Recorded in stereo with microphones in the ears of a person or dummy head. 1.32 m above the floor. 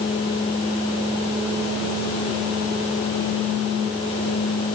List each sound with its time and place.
Only background noise.